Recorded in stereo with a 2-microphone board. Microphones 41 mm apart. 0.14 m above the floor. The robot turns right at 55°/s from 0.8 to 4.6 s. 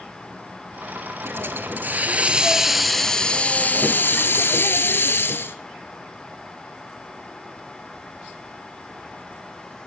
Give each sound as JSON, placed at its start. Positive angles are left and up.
{"t": 1.2, "sound": "a hiss", "azimuth_deg": -90, "distance_m": 0.7}